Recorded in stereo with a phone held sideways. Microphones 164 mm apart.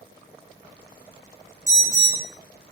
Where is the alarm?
45° right (ahead or behind), 0.6 m.